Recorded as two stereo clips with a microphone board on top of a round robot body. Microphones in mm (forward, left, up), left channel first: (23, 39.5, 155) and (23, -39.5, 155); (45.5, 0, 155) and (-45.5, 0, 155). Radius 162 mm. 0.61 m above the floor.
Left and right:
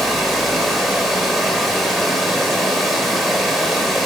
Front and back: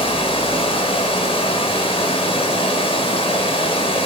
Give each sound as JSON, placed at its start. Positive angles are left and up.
{"t": 0.0, "sound": "running water", "azimuth_deg": 0, "distance_m": 1.4}